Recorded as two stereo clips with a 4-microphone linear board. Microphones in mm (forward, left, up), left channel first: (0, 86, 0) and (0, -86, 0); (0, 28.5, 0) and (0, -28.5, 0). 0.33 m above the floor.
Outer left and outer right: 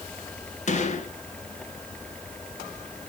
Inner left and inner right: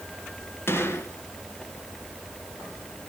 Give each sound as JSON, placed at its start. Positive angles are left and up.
{"t": 0.7, "sound": "a gunshot", "side_deg": 45, "distance_m": 1.5}